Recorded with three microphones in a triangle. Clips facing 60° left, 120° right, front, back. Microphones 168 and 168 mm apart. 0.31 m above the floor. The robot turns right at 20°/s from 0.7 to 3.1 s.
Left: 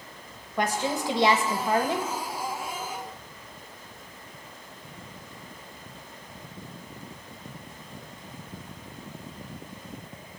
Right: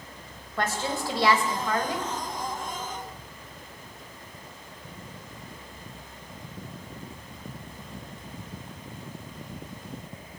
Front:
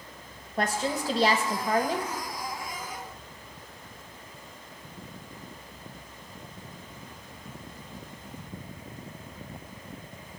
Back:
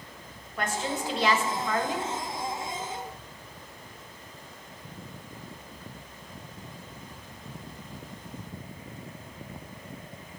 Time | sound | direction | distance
0.6 | a woman speaking | 5° right | 1.0 m